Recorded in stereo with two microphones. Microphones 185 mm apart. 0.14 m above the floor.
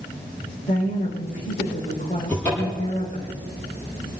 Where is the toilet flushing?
I don't hear a toilet flushing.